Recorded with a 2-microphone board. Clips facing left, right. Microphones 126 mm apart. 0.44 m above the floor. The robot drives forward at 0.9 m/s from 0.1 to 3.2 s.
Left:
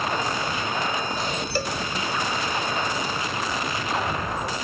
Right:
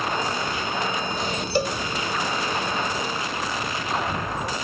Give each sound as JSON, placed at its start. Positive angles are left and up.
{"t": 1.6, "sound": "a cowbell", "side_deg": -20}